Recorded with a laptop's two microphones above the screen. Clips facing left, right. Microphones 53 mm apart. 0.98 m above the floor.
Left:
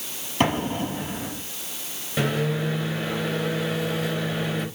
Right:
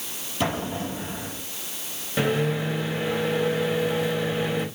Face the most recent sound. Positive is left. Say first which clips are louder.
# right 1 dB
turn(degrees=0)  # may be behind; listen again after turning